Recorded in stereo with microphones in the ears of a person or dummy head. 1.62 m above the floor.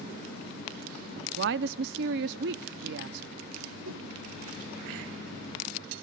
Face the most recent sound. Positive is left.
turn(degrees=-75)  # may be behind; listen again after turning